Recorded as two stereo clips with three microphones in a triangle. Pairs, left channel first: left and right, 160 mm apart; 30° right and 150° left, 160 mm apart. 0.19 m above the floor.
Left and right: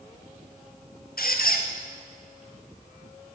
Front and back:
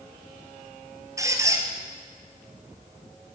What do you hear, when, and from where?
1.2 s a squeak: 80° left, 1.8 m